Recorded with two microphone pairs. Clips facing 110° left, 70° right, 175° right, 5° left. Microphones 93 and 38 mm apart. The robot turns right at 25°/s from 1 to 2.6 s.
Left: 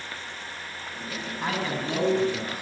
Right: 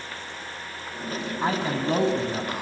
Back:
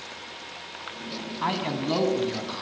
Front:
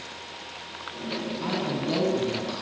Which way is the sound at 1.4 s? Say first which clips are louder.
Right 3 dB, back 3 dB; 130° right.